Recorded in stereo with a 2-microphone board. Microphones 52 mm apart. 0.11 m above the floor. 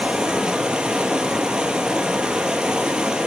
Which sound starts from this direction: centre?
Running water, at 0.0 s.